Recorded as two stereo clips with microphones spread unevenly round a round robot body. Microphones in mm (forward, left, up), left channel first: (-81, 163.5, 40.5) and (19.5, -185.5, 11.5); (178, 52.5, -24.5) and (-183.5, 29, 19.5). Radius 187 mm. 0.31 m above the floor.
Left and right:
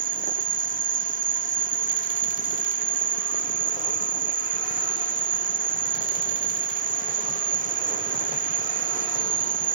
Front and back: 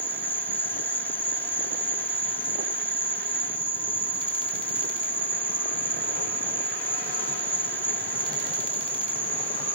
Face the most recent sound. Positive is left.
turn(degrees=-60)